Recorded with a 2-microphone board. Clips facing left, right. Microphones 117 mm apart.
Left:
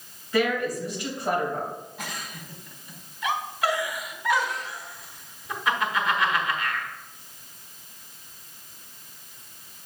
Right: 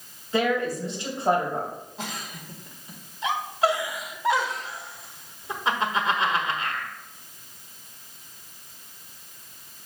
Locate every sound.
0.3 s a woman speaking: 30° right (ahead or behind), 3 m
2.0 s a giggle: 30° right (ahead or behind), 1.1 m